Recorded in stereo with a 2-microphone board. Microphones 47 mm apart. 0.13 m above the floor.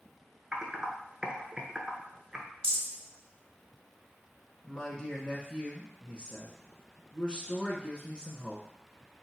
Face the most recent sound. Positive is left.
turn(degrees=20)  # may be behind; listen again after turning